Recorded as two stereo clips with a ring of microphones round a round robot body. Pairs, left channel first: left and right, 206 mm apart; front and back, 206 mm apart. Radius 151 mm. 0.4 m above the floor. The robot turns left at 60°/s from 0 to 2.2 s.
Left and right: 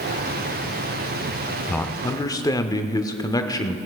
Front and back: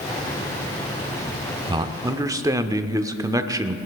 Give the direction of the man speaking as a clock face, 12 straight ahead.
7 o'clock.